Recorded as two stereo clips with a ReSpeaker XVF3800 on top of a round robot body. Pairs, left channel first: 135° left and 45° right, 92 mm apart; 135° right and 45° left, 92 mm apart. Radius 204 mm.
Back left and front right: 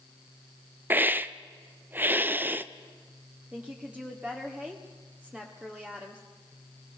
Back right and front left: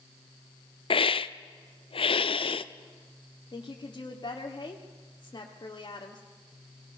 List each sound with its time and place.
0.9 s a hiss: 115° right, 0.6 m
3.5 s a woman speaking: 120° right, 1.9 m